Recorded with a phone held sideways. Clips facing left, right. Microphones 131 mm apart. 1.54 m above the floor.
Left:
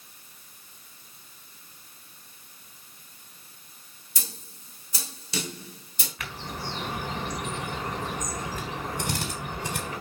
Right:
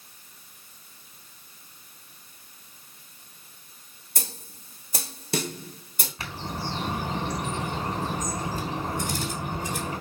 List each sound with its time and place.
4.2 s a snare drum: 50° right (ahead or behind), 1.9 m
6.2 s a bird: 30° right (ahead or behind), 3 m
9.0 s a drill: 70° left (ahead or behind), 3.5 m